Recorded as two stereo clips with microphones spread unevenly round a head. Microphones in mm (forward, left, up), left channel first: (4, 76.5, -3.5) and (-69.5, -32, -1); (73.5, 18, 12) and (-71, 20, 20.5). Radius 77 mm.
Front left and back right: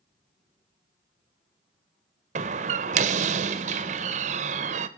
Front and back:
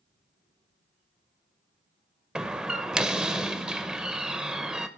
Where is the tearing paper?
I don't hear tearing paper.